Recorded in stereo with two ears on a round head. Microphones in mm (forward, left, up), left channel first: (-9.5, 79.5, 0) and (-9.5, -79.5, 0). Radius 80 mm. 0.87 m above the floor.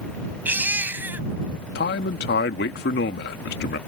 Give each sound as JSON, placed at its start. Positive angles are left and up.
{"t": 0.5, "sound": "a baby crying", "side_deg": -10}
{"t": 1.8, "sound": "a man speaking", "side_deg": 60}